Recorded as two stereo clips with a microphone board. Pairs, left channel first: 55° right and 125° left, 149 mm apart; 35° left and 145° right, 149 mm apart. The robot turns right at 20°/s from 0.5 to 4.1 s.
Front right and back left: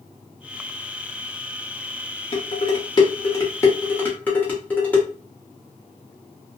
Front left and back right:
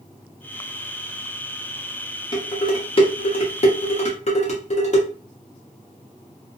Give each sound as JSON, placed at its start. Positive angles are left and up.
{"t": 2.3, "sound": "dishes clattering", "azimuth_deg": -15, "distance_m": 1.1}